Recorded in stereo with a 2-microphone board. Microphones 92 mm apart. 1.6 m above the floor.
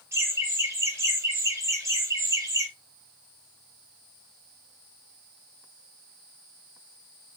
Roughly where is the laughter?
Right.